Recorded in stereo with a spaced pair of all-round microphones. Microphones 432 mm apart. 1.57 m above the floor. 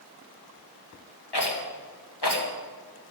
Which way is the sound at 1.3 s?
75° left (ahead or behind).